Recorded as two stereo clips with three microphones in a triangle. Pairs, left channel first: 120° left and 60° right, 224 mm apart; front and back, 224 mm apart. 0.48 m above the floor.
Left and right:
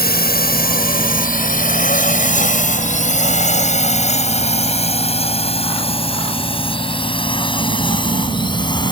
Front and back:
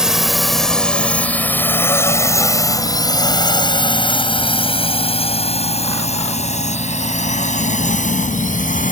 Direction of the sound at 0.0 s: 95° left.